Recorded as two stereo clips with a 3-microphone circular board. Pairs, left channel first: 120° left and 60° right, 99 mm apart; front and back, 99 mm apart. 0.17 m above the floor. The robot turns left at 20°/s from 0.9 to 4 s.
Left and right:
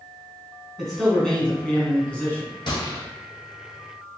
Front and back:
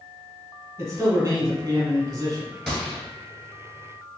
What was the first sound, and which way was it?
A man speaking, 155° right.